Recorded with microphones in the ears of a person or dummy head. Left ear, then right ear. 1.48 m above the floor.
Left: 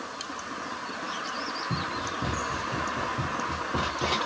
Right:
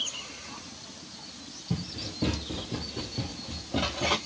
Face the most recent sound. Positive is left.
turn(degrees=-35)  # may be behind; listen again after turning